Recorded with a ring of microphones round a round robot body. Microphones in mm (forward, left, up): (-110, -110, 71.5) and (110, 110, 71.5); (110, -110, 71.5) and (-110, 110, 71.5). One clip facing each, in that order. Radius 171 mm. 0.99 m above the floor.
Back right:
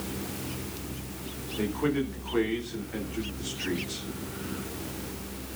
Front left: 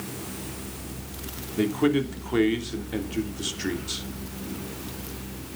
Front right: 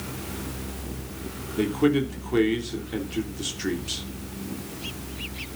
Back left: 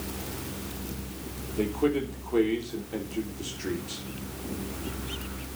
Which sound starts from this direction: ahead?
A man speaking, at 1.6 s.